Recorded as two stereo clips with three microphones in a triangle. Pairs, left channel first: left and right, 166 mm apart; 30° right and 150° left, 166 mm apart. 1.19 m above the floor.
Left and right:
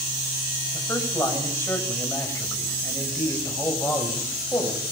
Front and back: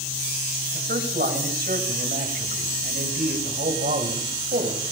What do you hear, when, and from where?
0.7 s a man speaking: 165° left, 7.5 m